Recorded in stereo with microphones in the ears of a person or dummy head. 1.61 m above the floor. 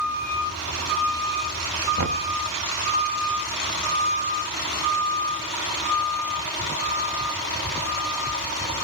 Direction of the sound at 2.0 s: 55° right (ahead or behind).